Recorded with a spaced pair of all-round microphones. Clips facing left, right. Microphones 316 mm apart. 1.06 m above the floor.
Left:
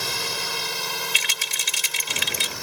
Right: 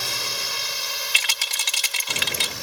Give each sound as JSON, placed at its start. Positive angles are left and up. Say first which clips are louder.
{"t": 0.0, "sound": "a drone", "louder": "left 3 dB", "side_deg": 65}
{"t": 1.1, "sound": "a rattle", "louder": "left 2 dB", "side_deg": -80}